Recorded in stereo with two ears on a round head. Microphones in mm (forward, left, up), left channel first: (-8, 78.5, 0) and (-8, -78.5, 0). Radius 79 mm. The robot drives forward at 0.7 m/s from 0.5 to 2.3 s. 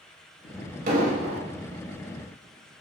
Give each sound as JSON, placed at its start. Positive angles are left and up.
{"t": 0.9, "sound": "an explosion", "side_deg": -50, "distance_m": 1.8}